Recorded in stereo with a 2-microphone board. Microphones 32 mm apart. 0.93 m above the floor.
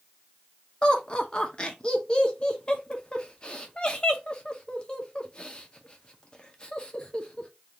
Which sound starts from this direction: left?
Laughter, at 0.8 s.